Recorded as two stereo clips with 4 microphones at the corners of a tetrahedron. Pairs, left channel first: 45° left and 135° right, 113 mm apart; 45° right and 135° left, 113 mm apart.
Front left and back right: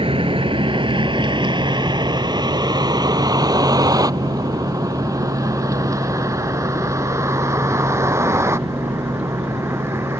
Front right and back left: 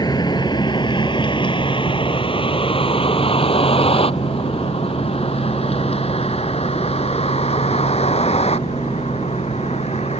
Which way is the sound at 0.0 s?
100° right.